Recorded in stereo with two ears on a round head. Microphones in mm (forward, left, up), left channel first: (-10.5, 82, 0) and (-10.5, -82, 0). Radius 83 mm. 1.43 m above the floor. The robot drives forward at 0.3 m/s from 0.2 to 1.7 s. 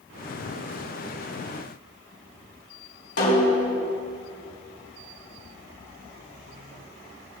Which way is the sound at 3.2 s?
70° left (ahead or behind).